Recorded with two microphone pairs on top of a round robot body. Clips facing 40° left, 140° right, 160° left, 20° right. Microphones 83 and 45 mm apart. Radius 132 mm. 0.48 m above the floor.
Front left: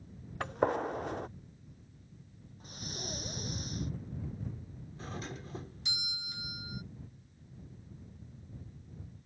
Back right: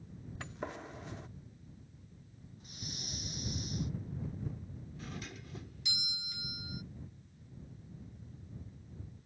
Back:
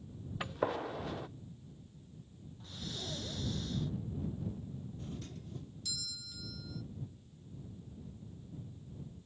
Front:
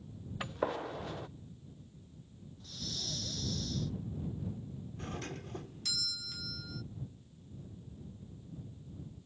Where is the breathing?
90° left.